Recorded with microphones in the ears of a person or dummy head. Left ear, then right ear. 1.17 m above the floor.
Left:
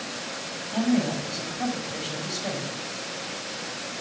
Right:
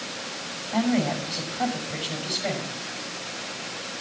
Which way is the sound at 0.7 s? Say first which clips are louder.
Right 1 dB; 50° right (ahead or behind).